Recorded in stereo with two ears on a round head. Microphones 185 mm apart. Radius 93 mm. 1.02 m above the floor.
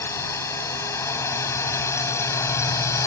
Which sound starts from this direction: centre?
A drone, at 0.0 s.